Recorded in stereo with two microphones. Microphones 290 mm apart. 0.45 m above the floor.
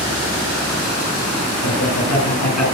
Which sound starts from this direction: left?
Laughter, at 1.6 s.